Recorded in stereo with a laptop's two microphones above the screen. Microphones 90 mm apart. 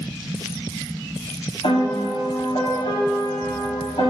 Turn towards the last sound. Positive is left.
turn(degrees=75)  # may be behind; listen again after turning